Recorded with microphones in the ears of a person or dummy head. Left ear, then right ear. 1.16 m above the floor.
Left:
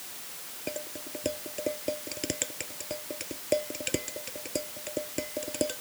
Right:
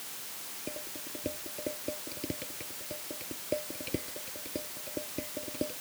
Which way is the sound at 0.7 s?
50° left (ahead or behind).